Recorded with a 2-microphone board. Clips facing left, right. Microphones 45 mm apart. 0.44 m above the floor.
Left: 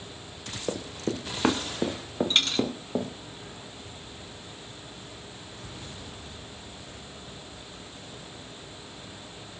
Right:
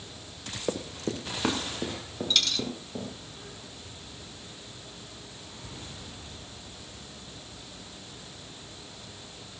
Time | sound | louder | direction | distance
0.7 | running footsteps | left 1 dB | 5° right (ahead or behind) | 1.6 m
2.3 | a dropped coin | left 1 dB | 30° left (ahead or behind) | 1.3 m